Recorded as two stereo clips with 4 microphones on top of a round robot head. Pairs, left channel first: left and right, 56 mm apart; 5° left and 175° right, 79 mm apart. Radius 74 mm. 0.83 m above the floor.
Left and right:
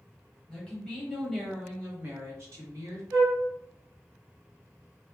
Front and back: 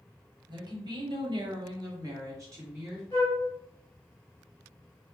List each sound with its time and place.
0.5 s a woman speaking: 165° left, 1.3 m; by 3.0 s 110° right, 1.2 m
3.1 s a flute: 70° right, 0.7 m